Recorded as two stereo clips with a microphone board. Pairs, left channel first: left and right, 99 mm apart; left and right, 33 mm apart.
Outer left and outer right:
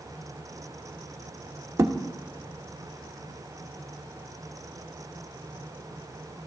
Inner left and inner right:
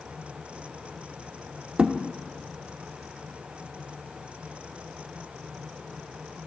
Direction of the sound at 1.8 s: 30° right (ahead or behind).